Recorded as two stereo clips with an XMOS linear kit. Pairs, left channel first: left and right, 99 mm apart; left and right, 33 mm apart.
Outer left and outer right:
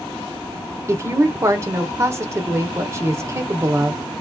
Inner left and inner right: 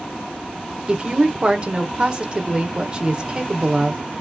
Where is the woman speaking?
30° right (ahead or behind), 1.0 m.